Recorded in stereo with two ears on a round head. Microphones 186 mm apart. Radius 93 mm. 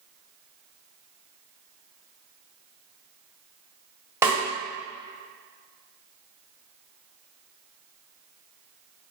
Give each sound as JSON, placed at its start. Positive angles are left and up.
{"t": 4.2, "sound": "a snare drum", "side_deg": -10, "distance_m": 2.0}